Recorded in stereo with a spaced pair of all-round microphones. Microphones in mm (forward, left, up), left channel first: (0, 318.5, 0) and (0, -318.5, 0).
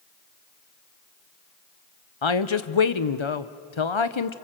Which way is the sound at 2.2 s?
50° left (ahead or behind).